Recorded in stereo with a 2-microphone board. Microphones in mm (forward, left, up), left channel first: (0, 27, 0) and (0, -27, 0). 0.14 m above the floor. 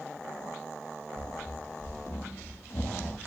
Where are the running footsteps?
85° left, 1.4 m; by 3.2 s 40° left (ahead or behind), 1.0 m.